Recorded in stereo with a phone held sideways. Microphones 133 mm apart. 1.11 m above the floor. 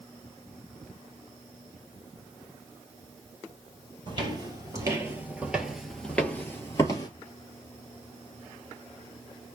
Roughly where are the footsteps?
Right.